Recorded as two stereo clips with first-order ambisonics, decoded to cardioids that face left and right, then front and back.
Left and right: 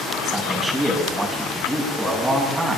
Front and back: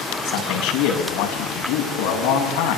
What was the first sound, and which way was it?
A man speaking, 10° right.